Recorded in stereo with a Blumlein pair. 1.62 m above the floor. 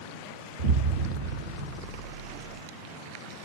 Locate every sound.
0.6 s an explosion: 60° right, 0.6 m